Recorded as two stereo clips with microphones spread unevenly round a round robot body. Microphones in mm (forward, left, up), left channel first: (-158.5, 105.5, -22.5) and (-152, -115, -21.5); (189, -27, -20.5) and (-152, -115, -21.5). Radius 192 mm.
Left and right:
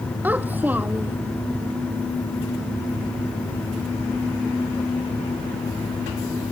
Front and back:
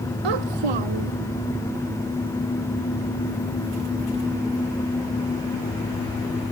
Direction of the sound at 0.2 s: 170° right.